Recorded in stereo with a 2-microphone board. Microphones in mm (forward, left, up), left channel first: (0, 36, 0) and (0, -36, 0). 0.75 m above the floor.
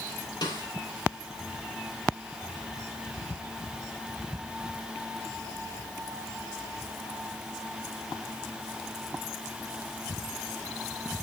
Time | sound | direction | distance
0.4 | a snare drum | 70° left (ahead or behind) | 4 m